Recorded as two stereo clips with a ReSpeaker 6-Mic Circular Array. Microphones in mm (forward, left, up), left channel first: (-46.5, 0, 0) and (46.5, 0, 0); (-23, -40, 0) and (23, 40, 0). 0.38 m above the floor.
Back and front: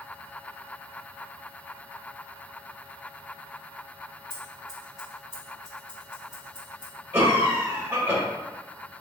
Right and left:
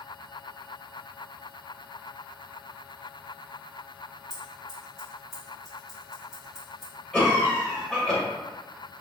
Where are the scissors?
150° left, 1.8 m.